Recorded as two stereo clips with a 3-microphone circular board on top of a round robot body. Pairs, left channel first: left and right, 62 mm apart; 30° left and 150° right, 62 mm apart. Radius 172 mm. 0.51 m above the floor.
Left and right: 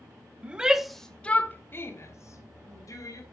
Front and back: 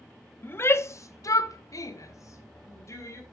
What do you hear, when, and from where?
0.4 s a shout: 20° right, 1.1 m; by 3.2 s 70° left, 2 m